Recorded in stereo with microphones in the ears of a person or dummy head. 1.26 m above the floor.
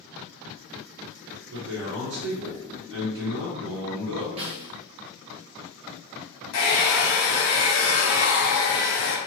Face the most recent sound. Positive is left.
turn(degrees=65)  # may be behind; listen again after turning